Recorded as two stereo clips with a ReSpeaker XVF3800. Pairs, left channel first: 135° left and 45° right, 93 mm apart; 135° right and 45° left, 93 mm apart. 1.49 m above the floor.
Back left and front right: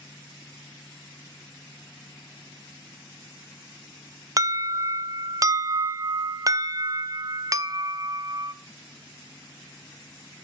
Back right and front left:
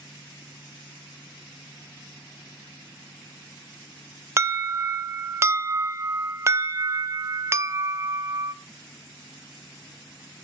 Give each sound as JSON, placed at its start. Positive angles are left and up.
{"t": 4.4, "sound": "an alarm", "azimuth_deg": -5, "distance_m": 0.5}